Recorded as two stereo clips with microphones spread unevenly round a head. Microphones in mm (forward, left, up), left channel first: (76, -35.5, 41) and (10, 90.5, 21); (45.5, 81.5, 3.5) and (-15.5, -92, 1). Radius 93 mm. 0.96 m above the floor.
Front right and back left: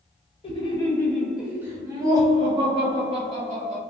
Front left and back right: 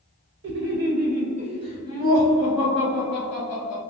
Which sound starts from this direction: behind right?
Laughter, at 0.4 s.